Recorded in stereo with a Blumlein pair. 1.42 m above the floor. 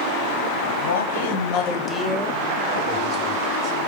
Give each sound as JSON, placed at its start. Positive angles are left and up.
{"t": 0.8, "sound": "a man speaking", "azimuth_deg": 70, "distance_m": 1.2}